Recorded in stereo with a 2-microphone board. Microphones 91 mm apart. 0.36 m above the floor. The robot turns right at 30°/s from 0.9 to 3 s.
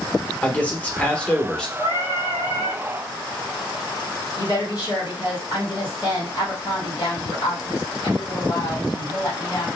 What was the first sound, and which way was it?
A man speaking, 15° left (ahead or behind).